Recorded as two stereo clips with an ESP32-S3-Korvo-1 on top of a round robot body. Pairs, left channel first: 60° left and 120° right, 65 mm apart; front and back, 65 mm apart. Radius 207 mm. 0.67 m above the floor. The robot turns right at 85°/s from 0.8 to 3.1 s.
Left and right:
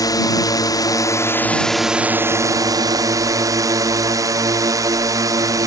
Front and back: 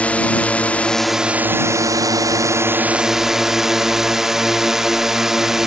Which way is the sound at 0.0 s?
70° left.